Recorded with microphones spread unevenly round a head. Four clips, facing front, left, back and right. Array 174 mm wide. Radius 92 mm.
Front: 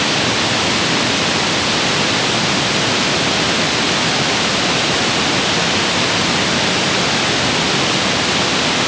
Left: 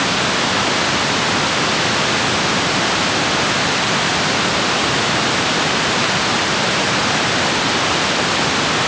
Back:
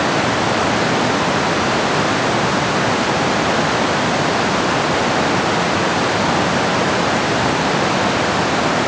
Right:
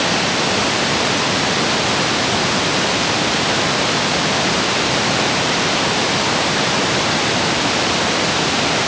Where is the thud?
I don't hear a thud.